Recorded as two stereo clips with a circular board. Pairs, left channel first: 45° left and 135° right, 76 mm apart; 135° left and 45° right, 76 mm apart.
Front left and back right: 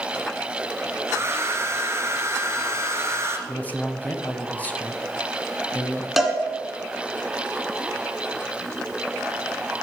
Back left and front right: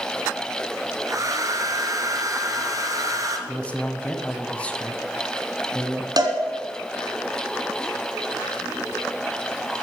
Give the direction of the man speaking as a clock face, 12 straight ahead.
9 o'clock.